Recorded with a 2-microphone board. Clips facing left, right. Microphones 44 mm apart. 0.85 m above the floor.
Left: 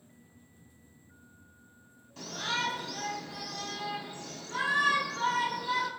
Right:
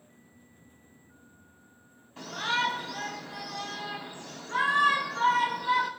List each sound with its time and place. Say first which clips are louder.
2.2 s a shout: right 4 dB; 25° right (ahead or behind), 5 m